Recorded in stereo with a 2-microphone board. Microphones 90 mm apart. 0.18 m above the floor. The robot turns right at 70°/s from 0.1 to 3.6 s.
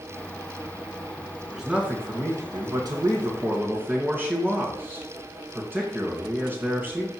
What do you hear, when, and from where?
1.5 s a man speaking: straight behind, 2 m; by 7.1 s 30° right, 2 m